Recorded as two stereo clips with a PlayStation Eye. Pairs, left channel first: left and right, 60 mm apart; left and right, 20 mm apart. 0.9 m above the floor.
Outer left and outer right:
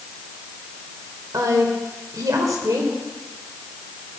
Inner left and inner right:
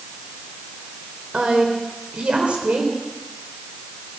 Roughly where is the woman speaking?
Right.